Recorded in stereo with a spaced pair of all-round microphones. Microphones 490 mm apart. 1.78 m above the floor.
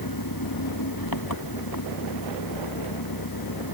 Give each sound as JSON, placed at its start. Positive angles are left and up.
{"t": 0.0, "sound": "an engine running", "side_deg": 45}